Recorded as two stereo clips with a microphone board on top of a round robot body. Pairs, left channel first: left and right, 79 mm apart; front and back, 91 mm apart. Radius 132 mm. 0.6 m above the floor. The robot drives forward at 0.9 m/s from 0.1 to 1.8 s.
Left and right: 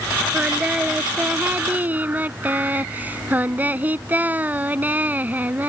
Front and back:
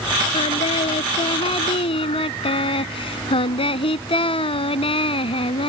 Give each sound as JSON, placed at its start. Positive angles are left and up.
{"t": 0.3, "sound": "singing", "azimuth_deg": -15}